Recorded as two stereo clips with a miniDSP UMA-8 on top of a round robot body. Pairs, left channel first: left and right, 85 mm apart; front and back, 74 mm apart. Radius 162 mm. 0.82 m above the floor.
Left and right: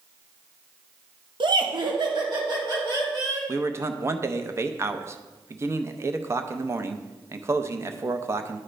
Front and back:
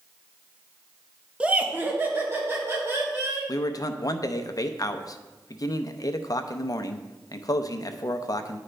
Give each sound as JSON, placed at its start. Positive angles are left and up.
{"t": 1.4, "sound": "laughter", "azimuth_deg": -105, "distance_m": 1.0}
{"t": 3.5, "sound": "a man speaking", "azimuth_deg": -35, "distance_m": 0.7}